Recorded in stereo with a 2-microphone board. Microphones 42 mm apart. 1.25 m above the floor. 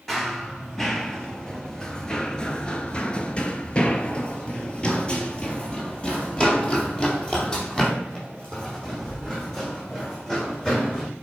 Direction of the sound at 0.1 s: 5° left (ahead or behind).